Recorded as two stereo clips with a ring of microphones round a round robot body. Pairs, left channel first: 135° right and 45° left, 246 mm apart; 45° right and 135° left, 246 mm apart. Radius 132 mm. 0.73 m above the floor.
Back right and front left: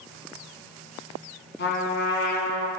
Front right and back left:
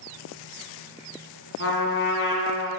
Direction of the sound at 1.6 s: 85° right.